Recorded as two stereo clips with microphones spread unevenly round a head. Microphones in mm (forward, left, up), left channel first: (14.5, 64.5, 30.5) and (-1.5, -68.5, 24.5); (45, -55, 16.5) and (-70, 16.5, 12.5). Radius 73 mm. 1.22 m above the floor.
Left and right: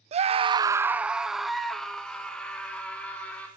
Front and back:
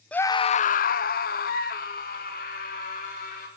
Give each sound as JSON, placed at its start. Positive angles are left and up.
{"t": 0.1, "sound": "a scream", "azimuth_deg": -115, "distance_m": 0.7}